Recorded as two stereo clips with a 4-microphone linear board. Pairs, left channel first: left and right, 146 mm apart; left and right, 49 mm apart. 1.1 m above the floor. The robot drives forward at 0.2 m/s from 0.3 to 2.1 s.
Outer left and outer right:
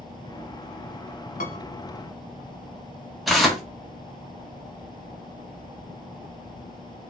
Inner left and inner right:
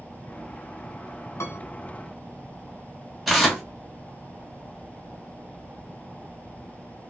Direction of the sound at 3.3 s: Centre (ahead or behind).